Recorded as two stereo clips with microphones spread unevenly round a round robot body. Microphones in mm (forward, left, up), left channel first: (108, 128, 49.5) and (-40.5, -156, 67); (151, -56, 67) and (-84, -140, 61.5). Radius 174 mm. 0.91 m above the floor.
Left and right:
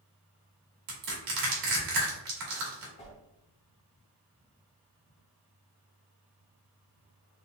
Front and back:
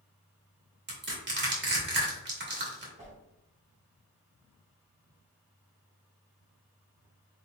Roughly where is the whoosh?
Behind left.